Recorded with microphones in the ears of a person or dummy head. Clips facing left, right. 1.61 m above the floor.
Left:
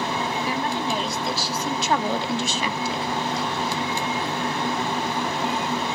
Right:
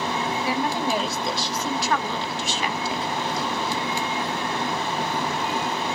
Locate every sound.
0.4 s a woman speaking: 10° right (ahead or behind), 1.6 m; by 3.1 s 65° left (ahead or behind), 0.8 m